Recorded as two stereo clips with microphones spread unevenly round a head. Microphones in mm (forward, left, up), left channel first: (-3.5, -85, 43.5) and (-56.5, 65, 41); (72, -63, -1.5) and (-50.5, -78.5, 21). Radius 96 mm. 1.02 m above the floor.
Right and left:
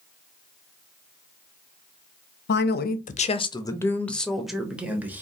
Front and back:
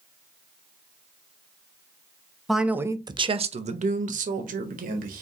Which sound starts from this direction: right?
A man speaking, at 2.5 s.